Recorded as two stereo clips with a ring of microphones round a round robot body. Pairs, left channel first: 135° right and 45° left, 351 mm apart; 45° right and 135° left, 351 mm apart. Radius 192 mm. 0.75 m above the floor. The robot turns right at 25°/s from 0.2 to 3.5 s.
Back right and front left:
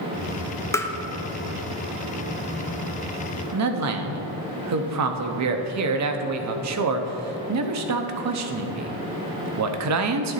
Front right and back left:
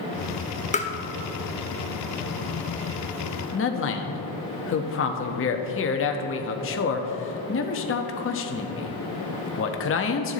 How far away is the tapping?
About 0.8 m.